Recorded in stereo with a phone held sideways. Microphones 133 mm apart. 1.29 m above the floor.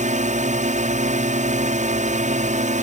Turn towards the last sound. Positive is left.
turn(degrees=-65)  # may be behind; listen again after turning